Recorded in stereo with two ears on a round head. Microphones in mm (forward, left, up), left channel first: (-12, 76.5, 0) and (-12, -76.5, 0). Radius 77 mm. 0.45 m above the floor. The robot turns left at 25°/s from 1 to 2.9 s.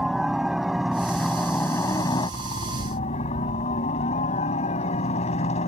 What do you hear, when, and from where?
0.0 s a helicopter: straight behind; by 5.7 s 135° left